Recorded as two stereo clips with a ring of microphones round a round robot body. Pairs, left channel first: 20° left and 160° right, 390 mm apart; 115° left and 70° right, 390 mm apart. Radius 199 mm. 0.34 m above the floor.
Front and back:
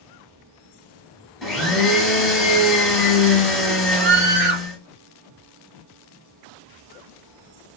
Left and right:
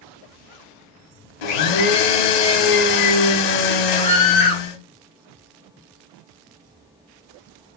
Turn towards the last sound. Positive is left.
turn(degrees=-140)